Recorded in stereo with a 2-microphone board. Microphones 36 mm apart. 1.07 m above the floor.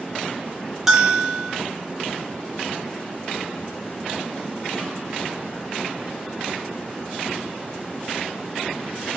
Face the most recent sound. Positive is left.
turn(degrees=-10)  # may be behind; listen again after turning